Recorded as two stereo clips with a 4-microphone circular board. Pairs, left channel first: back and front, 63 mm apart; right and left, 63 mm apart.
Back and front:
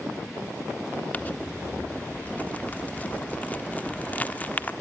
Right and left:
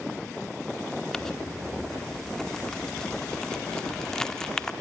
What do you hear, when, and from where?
1.1 s crumpling: 160° right, 1.1 m